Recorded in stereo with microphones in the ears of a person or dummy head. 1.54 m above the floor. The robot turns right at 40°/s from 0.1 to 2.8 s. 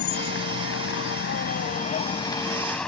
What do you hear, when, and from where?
0.0 s a vehicle: 65° left; by 2.9 s 175° left